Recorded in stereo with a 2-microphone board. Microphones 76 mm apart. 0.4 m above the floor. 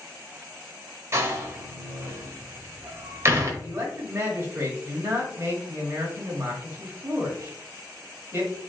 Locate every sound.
1.1 s a door slam: 35° right (ahead or behind), 1.1 m
3.6 s a man speaking: 30° right (ahead or behind), 1.6 m